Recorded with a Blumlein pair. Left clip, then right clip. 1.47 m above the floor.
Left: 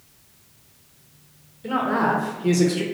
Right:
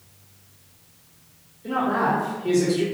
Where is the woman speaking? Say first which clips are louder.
Left 1 dB; 30° left, 1.2 m.